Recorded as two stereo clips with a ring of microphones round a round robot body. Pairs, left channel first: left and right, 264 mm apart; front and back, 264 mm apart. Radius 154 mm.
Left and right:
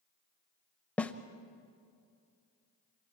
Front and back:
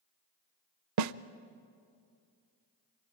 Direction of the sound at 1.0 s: 175° left.